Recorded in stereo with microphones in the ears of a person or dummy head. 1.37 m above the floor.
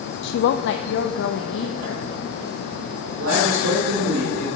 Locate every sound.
0.2 s a woman speaking: 65° left (ahead or behind), 0.5 m; by 2.0 s 75° left (ahead or behind), 1.6 m
3.0 s a man speaking: 75° right (ahead or behind), 4 m